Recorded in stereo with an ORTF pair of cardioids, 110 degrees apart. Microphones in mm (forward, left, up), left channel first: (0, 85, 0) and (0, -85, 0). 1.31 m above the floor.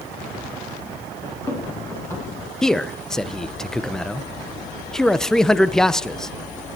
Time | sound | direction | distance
1.2 | running footsteps | 20° left | 7.5 m
2.6 | a man speaking | 5° left | 0.7 m